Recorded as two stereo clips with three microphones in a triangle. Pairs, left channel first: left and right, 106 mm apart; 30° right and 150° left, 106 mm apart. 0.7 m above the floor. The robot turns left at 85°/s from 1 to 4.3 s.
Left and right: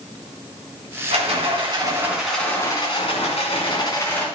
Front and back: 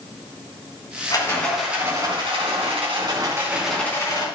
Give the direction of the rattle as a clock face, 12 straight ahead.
3 o'clock.